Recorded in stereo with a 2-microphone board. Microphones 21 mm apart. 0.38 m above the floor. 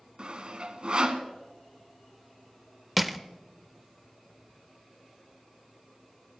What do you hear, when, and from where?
0.2 s sawing: 50° right (ahead or behind), 1.5 m
3.0 s crushing: 5° right (ahead or behind), 0.8 m